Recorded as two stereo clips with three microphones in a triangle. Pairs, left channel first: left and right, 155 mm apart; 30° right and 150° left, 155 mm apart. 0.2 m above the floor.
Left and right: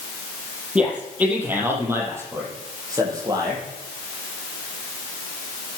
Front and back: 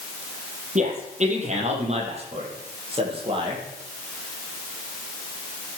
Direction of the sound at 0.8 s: 170° right.